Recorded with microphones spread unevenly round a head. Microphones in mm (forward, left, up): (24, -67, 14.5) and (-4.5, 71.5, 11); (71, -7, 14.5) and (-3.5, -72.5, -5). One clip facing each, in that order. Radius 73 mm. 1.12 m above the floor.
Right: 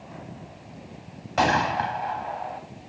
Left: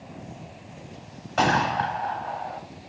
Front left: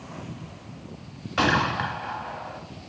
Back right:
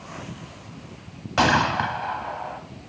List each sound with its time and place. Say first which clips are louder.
1.4 s a gunshot: even, back right 3 dB; 140° right, 1.0 m